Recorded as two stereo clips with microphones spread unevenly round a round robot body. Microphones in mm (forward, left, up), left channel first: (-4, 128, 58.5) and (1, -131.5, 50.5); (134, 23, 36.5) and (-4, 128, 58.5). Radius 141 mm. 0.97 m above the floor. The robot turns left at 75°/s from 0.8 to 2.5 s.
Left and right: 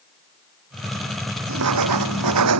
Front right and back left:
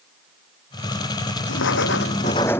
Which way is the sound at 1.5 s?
45° right.